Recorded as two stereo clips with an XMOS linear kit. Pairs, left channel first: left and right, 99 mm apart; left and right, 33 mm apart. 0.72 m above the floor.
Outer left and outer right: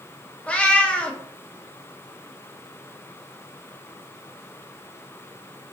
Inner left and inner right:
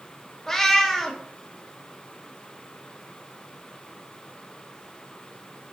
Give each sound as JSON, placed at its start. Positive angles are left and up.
{"t": 0.5, "sound": "a cat meowing", "side_deg": 10, "distance_m": 0.6}